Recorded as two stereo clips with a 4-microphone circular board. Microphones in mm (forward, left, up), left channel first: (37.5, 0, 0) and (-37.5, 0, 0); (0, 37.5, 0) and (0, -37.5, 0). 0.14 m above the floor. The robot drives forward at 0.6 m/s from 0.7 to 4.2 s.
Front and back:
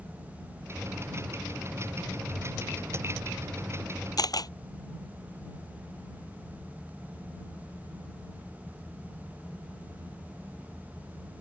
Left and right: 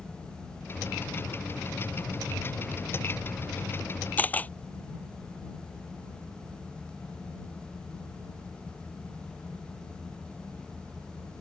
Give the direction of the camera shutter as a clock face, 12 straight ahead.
11 o'clock.